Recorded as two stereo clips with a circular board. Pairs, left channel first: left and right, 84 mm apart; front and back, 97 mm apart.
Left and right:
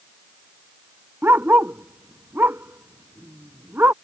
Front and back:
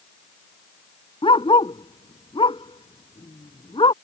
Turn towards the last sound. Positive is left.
turn(degrees=-25)